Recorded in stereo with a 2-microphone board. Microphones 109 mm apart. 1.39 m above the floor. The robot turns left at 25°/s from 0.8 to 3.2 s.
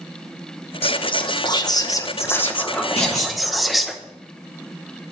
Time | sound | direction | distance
0.8 | whispering | 60° left | 0.8 m
3.0 | a clunk | 70° left (ahead or behind) | 2.5 m